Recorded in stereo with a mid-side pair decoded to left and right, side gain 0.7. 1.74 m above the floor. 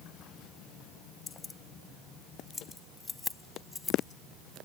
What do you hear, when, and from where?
1.3 s keys jangling: 25° left; by 4.7 s 15° left